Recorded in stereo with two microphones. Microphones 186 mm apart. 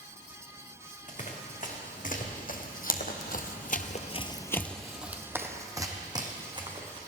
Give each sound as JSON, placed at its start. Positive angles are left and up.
{"t": 1.1, "sound": "running footsteps", "side_deg": 40, "distance_m": 3.0}